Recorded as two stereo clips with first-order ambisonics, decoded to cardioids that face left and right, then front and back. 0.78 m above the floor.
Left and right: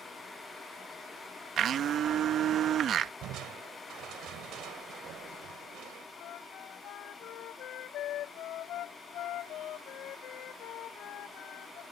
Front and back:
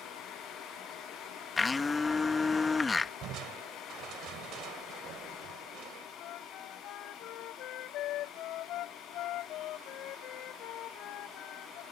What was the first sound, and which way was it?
A blender, 65° right.